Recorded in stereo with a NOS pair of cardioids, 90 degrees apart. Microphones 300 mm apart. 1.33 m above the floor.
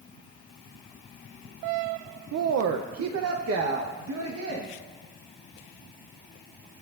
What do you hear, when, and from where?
2.3 s a woman speaking: 60° right, 0.6 m; by 4.7 s 50° right, 1.8 m